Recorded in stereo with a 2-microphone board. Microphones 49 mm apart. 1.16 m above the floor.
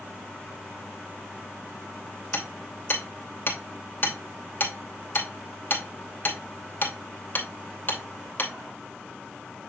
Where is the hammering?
40° left (ahead or behind), 2.5 m.